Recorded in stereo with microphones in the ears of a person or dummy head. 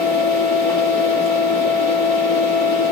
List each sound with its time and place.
0.0 s a fan: 25° left (ahead or behind), 1.2 m